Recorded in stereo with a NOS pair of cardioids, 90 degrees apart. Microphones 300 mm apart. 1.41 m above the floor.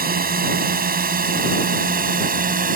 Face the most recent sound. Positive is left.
turn(degrees=-30)